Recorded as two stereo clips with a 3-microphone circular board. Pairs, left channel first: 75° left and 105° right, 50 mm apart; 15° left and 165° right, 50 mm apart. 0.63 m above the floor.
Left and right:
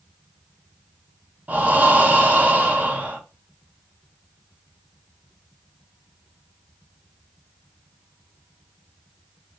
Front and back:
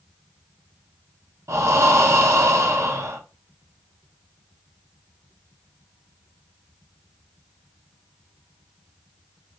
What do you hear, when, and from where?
1.5 s breathing: 160° right, 0.5 m